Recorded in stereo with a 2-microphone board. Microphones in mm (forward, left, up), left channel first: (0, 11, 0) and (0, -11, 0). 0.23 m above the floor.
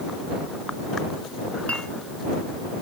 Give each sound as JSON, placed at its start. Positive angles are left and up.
{"t": 1.7, "sound": "a clink", "side_deg": 75}